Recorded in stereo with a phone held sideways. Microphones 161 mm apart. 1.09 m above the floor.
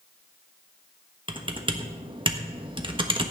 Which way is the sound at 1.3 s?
30° right (ahead or behind).